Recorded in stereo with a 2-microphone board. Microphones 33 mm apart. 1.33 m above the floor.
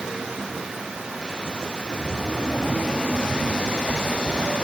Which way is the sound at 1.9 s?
85° right.